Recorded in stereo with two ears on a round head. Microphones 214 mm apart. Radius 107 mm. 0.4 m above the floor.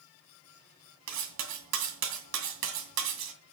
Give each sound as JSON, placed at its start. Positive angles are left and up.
{"t": 1.1, "sound": "cutlery clinking", "side_deg": -75, "distance_m": 2.0}